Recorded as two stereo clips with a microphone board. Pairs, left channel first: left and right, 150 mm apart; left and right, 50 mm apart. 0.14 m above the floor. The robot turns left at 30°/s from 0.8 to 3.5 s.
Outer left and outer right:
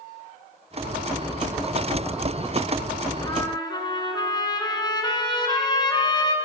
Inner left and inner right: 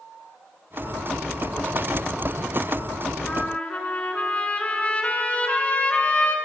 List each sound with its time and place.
3.2 s a trumpet: 25° left (ahead or behind), 1.7 m; by 6.3 s 30° left (ahead or behind), 1.7 m